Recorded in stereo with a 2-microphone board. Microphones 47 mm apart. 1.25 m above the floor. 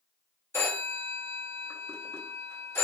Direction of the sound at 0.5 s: 55° left (ahead or behind).